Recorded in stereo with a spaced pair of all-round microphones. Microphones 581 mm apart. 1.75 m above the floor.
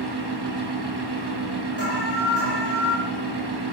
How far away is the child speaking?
I don't hear a child speaking.